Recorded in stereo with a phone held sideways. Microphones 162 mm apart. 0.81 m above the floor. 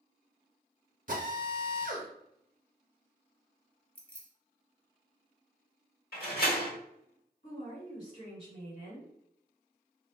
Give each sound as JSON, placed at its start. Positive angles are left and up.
{"t": 1.1, "sound": "a drill", "side_deg": -55, "distance_m": 0.7}
{"t": 4.0, "sound": "keys jangling", "side_deg": 10, "distance_m": 0.7}
{"t": 6.1, "sound": "a door slam", "side_deg": 70, "distance_m": 1.1}
{"t": 7.4, "sound": "a woman speaking", "side_deg": 45, "distance_m": 1.5}